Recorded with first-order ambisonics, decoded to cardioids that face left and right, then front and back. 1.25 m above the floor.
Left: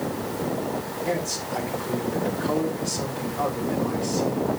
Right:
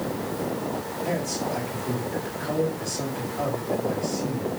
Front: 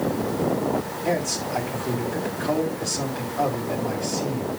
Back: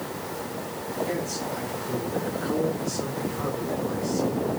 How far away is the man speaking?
About 7 m.